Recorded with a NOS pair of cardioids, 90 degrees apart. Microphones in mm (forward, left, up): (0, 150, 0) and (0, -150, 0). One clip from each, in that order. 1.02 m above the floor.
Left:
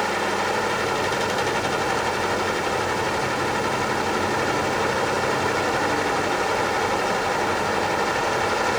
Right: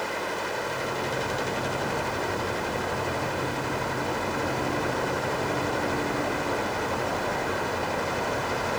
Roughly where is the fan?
Ahead left.